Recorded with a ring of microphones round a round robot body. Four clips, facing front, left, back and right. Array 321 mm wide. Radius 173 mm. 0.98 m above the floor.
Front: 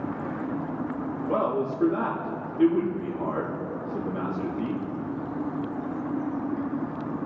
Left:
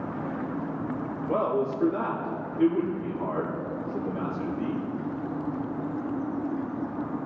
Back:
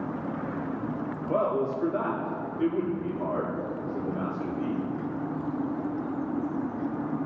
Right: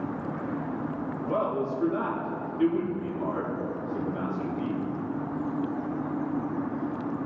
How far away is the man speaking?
About 3 m.